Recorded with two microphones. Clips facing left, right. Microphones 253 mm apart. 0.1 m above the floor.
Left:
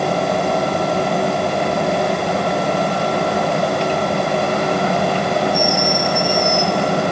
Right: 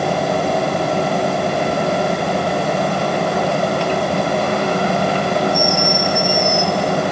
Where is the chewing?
I don't hear chewing.